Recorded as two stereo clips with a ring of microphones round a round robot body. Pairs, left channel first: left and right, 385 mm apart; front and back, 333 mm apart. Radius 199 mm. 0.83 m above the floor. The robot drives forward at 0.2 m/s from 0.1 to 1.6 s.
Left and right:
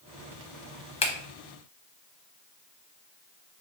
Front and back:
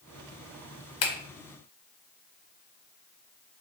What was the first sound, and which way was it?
A finger snap, 20° left.